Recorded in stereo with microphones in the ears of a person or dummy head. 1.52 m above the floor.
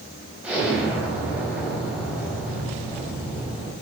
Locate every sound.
0.4 s an explosion: 10° right (ahead or behind), 4.5 m